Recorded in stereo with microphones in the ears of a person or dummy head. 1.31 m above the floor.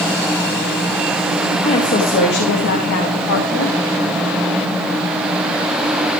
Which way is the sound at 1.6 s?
35° left (ahead or behind).